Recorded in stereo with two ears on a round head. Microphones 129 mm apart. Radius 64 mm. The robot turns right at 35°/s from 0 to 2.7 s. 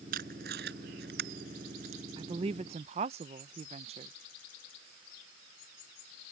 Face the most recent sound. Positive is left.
turn(degrees=-45)  # may be behind; listen again after turning